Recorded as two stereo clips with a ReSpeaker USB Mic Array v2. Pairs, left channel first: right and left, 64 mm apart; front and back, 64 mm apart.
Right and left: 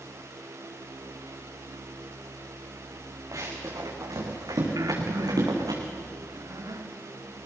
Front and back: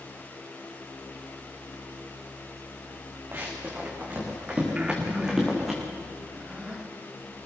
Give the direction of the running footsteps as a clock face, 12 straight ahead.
8 o'clock.